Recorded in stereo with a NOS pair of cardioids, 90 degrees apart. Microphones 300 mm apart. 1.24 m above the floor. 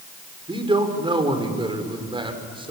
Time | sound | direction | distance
0.5 | a man speaking | 15° right | 4 m